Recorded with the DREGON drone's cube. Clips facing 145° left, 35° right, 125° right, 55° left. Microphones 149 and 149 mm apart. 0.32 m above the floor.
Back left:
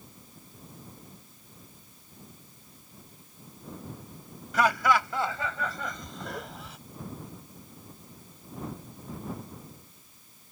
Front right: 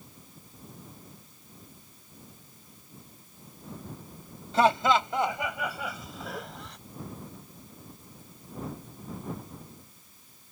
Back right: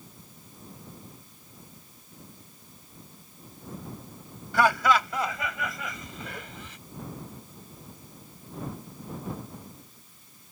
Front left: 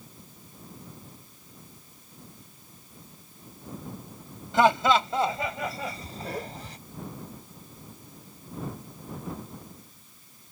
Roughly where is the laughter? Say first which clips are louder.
Front right 2 dB, front left 2 dB; ahead.